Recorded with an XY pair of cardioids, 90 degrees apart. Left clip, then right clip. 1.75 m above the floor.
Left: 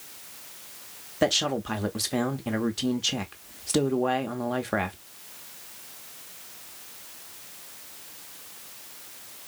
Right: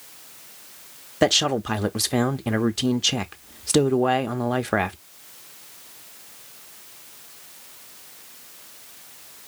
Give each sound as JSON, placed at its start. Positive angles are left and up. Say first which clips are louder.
{"t": 1.2, "sound": "a man speaking", "louder": "right 5 dB", "azimuth_deg": -45, "distance_m": 0.7}